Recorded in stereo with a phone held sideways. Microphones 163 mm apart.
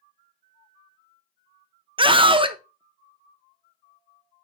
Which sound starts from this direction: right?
A scream, at 2.0 s.